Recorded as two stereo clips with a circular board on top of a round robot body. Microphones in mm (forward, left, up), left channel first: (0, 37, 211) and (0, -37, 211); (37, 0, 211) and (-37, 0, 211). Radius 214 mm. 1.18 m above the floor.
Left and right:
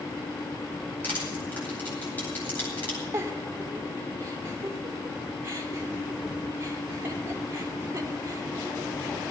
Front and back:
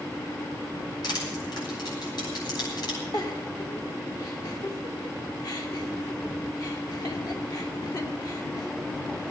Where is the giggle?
35° right, 2.5 m.